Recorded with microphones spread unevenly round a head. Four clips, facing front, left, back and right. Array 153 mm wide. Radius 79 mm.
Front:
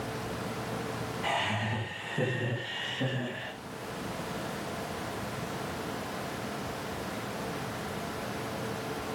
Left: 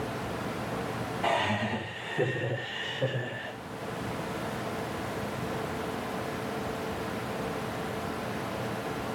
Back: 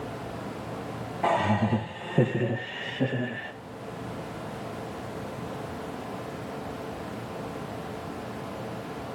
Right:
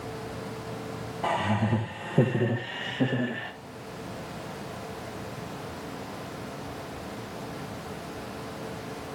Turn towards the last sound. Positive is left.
turn(degrees=-100)